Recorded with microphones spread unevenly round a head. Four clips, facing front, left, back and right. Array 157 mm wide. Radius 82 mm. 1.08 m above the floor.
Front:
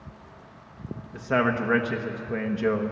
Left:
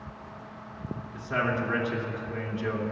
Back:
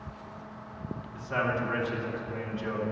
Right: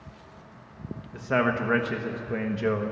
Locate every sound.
1.1 s a man speaking: 40° right, 1.2 m